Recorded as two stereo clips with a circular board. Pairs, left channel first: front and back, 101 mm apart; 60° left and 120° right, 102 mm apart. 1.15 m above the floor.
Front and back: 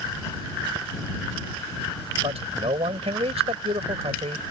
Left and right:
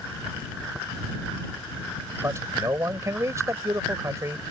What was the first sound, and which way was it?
A man speaking, straight behind.